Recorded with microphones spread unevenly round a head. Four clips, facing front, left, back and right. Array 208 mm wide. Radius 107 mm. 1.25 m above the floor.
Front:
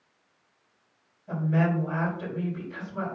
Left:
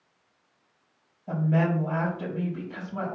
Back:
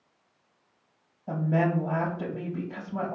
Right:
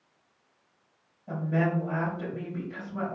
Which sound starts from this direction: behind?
A woman speaking, at 1.3 s.